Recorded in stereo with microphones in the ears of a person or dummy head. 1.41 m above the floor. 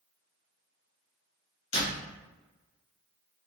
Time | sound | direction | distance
1.7 | a door slam | 35° left (ahead or behind) | 1.6 m